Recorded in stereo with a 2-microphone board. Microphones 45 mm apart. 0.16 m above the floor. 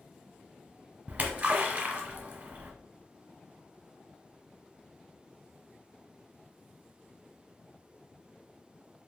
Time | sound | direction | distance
1.1 | a splash | 35° right (ahead or behind) | 1.2 m